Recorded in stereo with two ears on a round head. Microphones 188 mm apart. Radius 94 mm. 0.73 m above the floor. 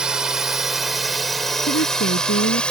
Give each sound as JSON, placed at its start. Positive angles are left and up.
{"t": 0.0, "sound": "a drone", "side_deg": -5}
{"t": 1.7, "sound": "a woman speaking", "side_deg": 55}